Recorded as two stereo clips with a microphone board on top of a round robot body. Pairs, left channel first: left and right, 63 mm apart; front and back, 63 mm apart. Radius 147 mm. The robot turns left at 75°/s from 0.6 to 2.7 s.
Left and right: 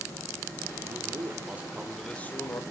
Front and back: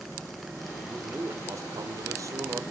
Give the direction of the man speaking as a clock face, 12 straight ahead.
3 o'clock.